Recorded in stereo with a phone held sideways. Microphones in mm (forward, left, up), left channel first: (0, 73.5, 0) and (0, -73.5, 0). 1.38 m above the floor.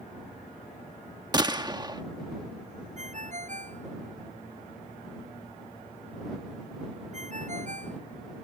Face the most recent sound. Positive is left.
turn(degrees=-55)  # may be behind; listen again after turning